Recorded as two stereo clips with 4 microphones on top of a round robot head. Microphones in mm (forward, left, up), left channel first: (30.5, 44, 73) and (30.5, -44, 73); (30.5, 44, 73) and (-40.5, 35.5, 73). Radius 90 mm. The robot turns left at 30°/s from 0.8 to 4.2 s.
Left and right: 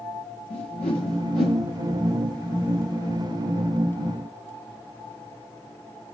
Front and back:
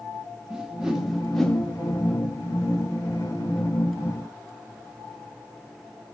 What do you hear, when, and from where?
0.5 s a whoosh: 110° left, 0.8 m; by 1.6 s 85° left, 0.8 m